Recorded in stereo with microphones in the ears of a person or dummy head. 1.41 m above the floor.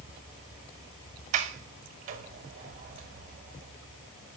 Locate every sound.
1.3 s a sliding door: 40° right (ahead or behind), 1.0 m